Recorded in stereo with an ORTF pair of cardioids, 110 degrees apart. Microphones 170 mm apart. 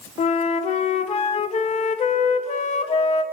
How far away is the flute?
About 0.6 m.